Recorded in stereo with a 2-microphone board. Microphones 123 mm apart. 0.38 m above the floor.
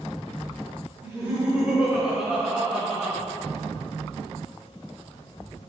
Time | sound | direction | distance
1.0 | laughter | 25° right (ahead or behind) | 1.2 m